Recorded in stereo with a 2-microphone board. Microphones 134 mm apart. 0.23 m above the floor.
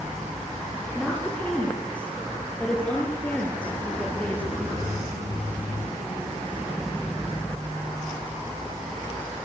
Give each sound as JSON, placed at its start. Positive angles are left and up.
{"t": 0.9, "sound": "a woman speaking", "side_deg": 10, "distance_m": 4.5}